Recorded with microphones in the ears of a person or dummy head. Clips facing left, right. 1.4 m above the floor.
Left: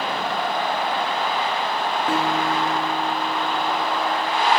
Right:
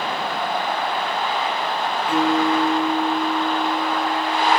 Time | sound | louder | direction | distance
2.1 | a guitar | right 6 dB | 30° left (ahead or behind) | 3 m